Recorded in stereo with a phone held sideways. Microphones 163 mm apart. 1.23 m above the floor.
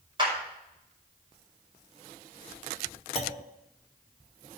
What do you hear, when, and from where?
0.2 s a clap: 30° right (ahead or behind), 5.5 m
3.1 s a clunk: 40° left (ahead or behind), 1.0 m